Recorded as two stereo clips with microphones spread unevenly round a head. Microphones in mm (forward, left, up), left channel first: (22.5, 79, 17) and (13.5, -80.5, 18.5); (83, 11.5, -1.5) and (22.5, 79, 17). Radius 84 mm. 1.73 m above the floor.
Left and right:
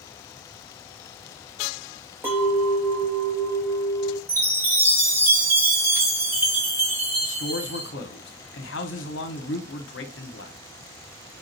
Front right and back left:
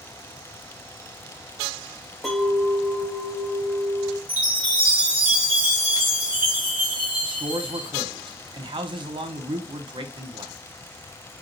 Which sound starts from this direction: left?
A man speaking, at 7.2 s.